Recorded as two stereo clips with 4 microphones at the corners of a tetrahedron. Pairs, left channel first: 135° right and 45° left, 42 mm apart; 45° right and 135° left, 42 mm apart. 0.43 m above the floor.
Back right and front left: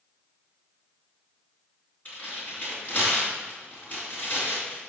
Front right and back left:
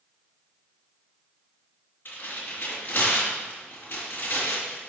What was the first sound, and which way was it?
Tearing paper, 80° right.